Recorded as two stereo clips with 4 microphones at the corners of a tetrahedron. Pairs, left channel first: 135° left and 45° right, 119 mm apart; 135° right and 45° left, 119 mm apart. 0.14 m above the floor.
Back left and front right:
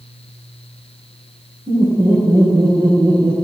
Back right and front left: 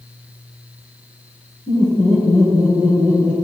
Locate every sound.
1.7 s laughter: 85° right, 5 m; by 3.3 s 80° right, 3.5 m